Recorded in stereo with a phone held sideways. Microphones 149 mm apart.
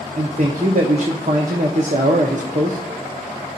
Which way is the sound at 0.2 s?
55° right (ahead or behind).